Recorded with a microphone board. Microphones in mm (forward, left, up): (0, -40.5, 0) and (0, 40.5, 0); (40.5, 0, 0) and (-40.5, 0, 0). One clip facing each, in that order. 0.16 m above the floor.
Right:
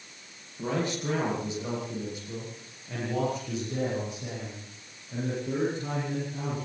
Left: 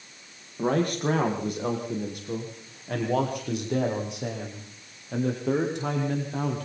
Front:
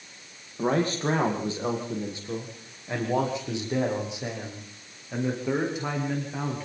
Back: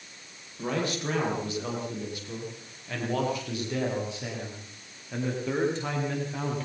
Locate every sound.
0.6 s a man speaking: 55° left, 8 m; by 6.7 s 85° left, 11 m